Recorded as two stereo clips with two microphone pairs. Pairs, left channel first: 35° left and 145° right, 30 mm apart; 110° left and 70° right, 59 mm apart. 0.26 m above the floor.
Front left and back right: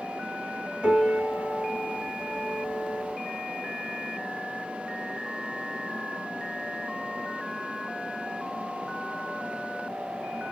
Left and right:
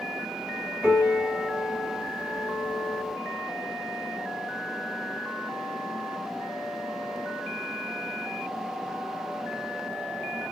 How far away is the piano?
About 2 m.